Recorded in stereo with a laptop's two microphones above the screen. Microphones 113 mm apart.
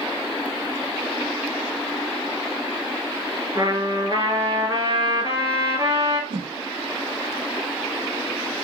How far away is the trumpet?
About 4.5 m.